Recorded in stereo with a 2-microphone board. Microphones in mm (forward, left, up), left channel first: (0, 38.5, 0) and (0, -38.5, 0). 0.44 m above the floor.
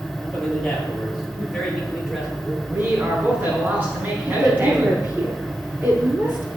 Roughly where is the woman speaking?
Right.